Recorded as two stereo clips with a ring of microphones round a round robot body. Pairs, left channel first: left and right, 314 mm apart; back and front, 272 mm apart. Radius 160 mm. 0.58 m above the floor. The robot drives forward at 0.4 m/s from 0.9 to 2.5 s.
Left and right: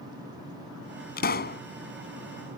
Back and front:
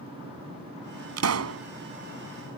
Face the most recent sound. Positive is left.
turn(degrees=35)